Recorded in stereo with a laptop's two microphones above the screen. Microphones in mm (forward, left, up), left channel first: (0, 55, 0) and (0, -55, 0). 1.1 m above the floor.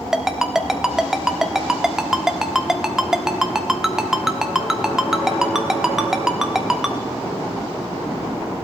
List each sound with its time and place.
0.1 s a ringtone: 5° right (ahead or behind), 1.2 m